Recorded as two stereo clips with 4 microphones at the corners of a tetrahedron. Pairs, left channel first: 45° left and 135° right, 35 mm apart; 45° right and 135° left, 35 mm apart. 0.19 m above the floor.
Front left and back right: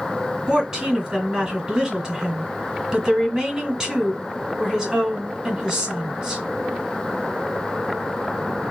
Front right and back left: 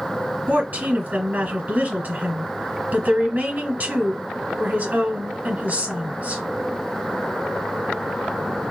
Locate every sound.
0.5 s a woman speaking: 150° left, 2 m